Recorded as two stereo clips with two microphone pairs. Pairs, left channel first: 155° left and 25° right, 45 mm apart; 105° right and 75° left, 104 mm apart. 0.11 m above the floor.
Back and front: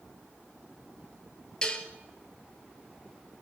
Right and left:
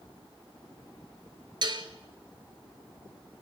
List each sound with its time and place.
1.6 s dishes clattering: 85° left, 1.1 m